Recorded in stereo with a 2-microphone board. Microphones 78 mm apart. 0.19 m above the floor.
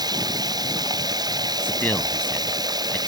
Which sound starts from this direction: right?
Running water, at 0.0 s.